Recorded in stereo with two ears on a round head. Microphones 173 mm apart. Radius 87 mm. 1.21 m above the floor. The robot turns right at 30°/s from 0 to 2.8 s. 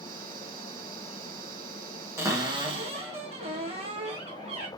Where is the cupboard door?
15° right (ahead or behind), 1.4 m; by 4.7 s 35° right (ahead or behind), 1.4 m.